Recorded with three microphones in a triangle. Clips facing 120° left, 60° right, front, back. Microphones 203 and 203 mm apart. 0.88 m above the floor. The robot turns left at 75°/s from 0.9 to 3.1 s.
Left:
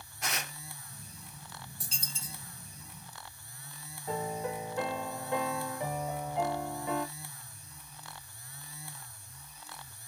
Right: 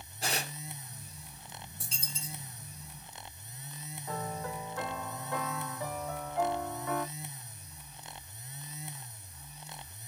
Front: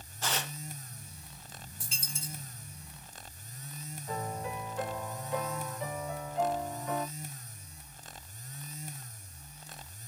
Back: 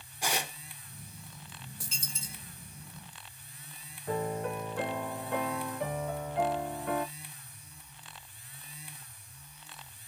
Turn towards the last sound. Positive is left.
turn(degrees=-170)